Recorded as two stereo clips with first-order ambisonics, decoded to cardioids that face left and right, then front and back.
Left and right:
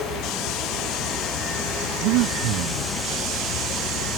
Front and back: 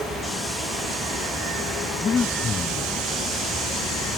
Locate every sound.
0.0 s running water: 100° left
2.0 s breathing: 70° right